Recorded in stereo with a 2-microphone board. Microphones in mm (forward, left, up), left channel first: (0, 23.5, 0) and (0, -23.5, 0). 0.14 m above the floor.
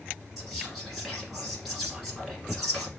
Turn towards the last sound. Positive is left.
turn(degrees=-5)  # may be behind; listen again after turning